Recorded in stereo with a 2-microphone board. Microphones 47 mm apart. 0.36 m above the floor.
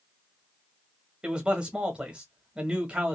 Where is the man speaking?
15° right (ahead or behind), 1.0 m.